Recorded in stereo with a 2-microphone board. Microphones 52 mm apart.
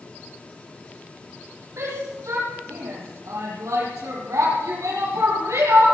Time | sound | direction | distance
1.8 | a shout | 75° right (ahead or behind) | 8 m